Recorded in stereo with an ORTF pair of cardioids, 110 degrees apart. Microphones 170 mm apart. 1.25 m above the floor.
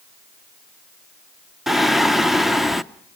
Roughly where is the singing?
Ahead.